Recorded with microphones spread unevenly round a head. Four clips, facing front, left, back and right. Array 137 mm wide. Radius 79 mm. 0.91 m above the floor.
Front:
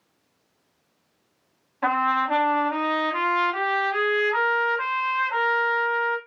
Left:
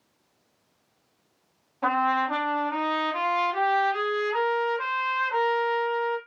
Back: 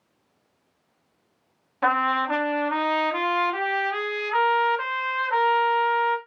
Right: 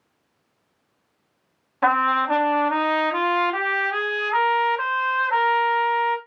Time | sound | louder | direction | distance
1.8 | a trumpet | right 4 dB, even | 90° right | 0.7 m